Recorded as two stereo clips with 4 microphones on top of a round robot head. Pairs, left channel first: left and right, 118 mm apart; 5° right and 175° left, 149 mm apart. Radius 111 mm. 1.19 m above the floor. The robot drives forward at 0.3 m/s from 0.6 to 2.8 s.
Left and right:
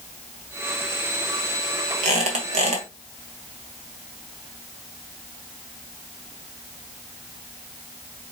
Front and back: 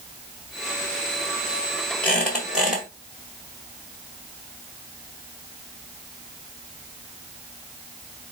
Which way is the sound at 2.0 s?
85° right.